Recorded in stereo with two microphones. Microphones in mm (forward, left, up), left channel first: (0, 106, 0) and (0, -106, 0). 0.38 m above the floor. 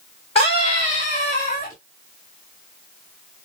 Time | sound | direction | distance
0.3 | a scream | 25° left (ahead or behind) | 1.9 m